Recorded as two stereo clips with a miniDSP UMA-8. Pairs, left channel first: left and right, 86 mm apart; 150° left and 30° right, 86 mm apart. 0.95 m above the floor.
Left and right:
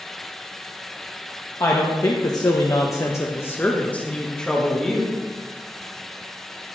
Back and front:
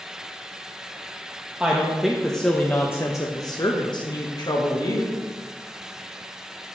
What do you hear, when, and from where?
1.6 s a woman speaking: 45° left, 1.1 m; by 5.2 s straight behind, 1.5 m